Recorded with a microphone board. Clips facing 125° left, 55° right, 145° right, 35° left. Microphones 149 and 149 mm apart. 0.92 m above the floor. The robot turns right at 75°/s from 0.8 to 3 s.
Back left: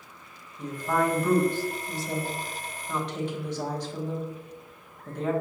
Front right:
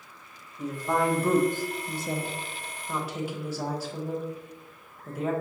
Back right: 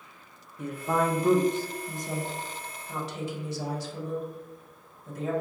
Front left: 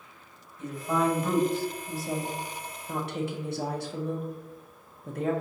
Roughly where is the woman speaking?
Behind right.